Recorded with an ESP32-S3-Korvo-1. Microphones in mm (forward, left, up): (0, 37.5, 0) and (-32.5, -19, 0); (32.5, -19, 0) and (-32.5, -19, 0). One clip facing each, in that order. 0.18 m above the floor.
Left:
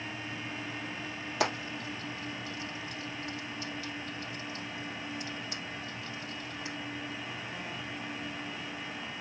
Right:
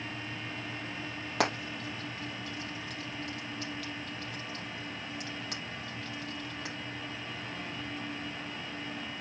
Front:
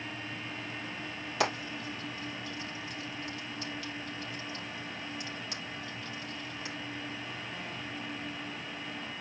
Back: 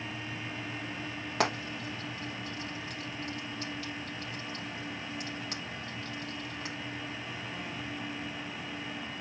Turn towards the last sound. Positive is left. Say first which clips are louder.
# right 1 dB, back 1 dB
turn(degrees=-140)